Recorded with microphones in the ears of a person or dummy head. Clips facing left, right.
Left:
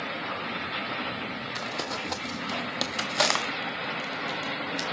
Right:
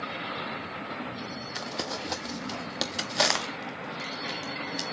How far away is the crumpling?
About 0.5 m.